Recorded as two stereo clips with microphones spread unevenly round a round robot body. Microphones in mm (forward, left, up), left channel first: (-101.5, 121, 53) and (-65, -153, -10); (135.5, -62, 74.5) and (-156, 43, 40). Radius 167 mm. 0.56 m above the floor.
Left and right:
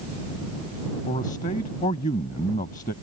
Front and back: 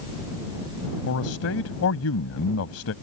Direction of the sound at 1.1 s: 25° left.